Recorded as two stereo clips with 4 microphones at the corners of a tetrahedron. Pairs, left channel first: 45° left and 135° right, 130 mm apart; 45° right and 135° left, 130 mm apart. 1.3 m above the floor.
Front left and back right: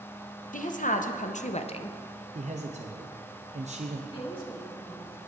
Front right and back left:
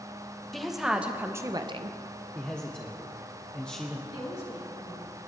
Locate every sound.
0.5 s a woman speaking: 45° left, 1.1 m; by 2.0 s 100° left, 0.5 m
2.4 s a man speaking: 125° right, 0.8 m
4.1 s a woman speaking: 5° right, 2.5 m